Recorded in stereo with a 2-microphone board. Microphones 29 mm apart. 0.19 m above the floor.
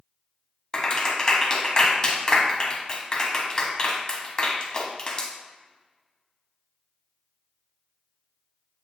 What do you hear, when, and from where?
0.7 s a clap: 25° left (ahead or behind), 1.4 m